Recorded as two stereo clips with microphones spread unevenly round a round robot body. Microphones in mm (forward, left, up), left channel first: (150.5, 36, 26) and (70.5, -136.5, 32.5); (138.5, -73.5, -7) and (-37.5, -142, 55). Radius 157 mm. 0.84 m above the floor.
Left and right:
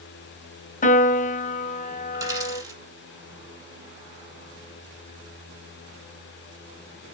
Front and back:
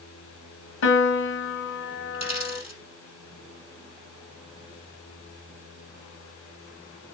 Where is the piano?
25° left, 1.1 m.